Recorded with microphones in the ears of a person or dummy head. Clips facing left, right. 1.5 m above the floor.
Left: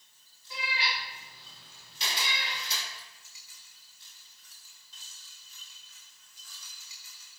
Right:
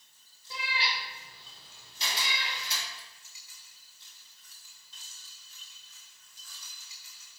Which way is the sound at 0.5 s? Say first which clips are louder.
Even; 30° right (ahead or behind).